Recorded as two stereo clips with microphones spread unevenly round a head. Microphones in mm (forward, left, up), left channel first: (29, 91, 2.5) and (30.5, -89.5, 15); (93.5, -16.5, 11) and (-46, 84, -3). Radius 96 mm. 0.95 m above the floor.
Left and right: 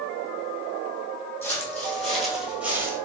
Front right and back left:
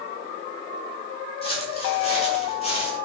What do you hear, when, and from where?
1.4 s footsteps: 10° left, 1.7 m; by 3.0 s 30° right, 1.1 m